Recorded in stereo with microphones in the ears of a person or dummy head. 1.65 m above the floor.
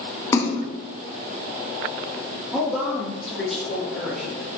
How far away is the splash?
About 1.4 m.